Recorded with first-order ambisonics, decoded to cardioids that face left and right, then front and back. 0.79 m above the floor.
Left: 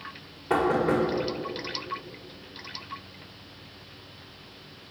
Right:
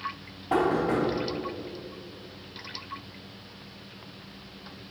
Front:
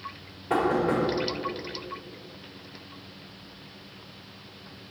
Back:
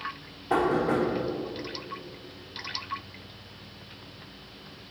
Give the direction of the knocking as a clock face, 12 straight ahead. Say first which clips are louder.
Left 1 dB, even; 9 o'clock.